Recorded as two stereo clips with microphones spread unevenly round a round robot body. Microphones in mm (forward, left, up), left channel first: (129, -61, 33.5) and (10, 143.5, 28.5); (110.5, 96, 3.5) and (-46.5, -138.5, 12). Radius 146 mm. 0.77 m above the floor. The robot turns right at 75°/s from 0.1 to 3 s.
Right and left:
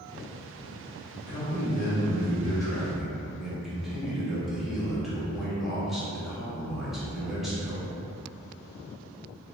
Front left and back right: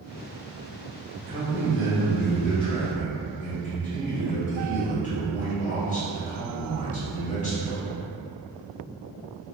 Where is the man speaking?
100° right, 0.9 m; by 7.9 s 35° left, 0.9 m.